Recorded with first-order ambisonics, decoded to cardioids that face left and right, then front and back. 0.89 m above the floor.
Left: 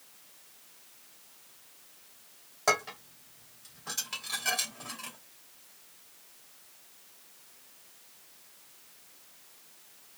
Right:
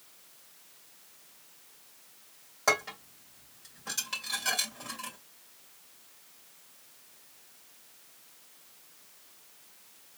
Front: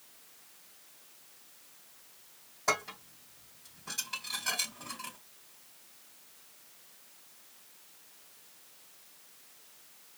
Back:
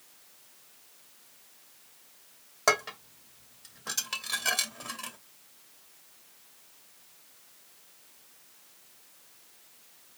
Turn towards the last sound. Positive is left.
turn(degrees=180)